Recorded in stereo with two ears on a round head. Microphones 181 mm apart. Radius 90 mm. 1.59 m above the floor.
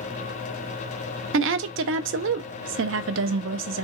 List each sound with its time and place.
1.3 s a woman speaking: 65° right (ahead or behind), 0.5 m